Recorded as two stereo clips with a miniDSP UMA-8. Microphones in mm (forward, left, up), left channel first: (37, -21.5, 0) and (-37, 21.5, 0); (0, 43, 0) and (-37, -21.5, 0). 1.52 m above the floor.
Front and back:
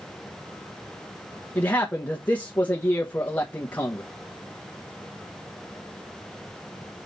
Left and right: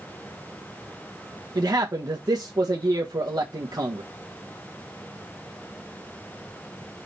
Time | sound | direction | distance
1.6 | a man speaking | 100° right | 1.2 m